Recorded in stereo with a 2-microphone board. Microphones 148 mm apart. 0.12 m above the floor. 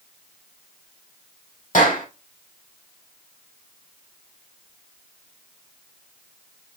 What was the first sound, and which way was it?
A clap, 60° left (ahead or behind).